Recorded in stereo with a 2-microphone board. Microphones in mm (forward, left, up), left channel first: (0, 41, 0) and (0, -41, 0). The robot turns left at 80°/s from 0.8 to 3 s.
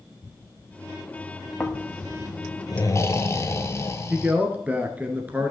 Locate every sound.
1.6 s snoring: 155° left, 0.9 m; by 4.3 s 45° left, 0.9 m
4.1 s a man speaking: 20° right (ahead or behind), 1.3 m